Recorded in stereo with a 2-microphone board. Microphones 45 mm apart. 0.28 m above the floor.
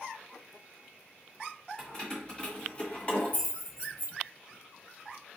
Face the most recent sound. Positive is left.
turn(degrees=40)  # may be behind; listen again after turning